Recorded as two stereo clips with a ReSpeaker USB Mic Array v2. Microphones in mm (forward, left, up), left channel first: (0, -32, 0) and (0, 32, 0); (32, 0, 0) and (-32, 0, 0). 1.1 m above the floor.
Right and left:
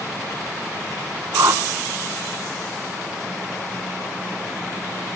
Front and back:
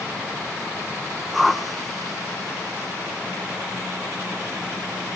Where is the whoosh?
95° left, 1.0 m.